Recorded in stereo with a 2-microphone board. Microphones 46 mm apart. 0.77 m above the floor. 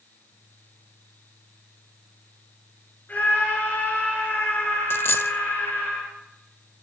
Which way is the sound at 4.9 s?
60° left (ahead or behind).